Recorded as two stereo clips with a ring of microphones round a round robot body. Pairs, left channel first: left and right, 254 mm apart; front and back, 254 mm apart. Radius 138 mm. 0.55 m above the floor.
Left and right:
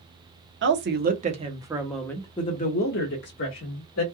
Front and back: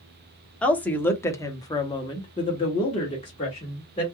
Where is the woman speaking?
85° right, 1.0 m; by 4.0 s 70° left, 1.4 m.